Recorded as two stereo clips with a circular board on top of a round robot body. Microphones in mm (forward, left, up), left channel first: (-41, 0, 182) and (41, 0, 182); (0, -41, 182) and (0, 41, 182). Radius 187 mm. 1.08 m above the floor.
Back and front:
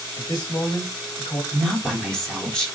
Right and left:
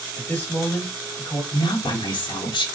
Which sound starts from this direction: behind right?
A man speaking, at 0.2 s.